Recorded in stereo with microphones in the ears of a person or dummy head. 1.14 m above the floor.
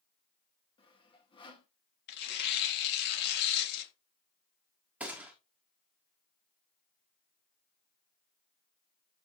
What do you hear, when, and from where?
0.8 s sawing: 25° left (ahead or behind), 1.5 m
2.1 s tearing paper: 55° left (ahead or behind), 1.9 m
5.0 s a gunshot: 5° right (ahead or behind), 1.6 m